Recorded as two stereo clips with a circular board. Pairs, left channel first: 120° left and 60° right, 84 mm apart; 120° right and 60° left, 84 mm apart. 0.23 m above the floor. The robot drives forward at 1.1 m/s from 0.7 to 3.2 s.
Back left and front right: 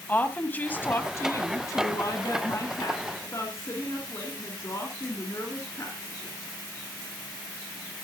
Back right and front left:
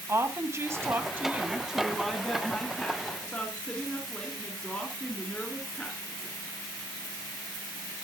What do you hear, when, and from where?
0.1 s a woman speaking: 75° left, 1.4 m; by 6.3 s 165° left, 3 m